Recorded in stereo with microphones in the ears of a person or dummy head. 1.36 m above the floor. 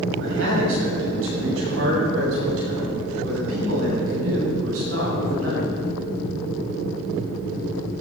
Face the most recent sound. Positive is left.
turn(degrees=-80)